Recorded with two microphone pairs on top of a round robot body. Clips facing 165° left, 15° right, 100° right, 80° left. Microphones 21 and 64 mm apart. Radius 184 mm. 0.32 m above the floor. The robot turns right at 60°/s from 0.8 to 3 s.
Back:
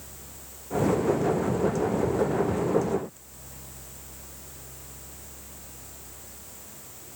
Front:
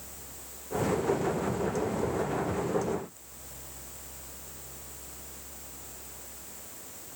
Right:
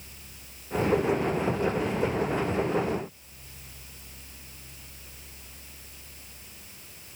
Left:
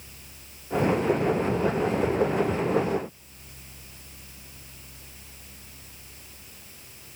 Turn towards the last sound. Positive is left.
No sound to turn to.